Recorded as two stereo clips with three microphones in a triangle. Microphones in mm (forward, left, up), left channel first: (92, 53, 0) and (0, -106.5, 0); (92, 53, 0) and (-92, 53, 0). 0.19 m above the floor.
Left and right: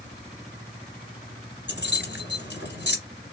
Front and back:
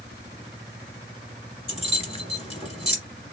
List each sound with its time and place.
1.7 s keys jangling: 55° left, 2 m